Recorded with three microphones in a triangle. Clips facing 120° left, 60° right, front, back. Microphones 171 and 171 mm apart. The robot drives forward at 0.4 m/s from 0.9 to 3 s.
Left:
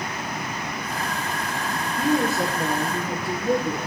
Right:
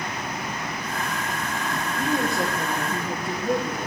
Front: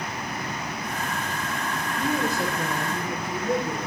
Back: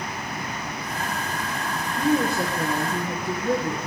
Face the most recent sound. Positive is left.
turn(degrees=-155)